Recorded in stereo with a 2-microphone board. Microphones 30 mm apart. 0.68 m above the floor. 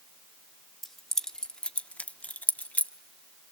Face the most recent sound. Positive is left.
turn(degrees=60)  # may be behind; listen again after turning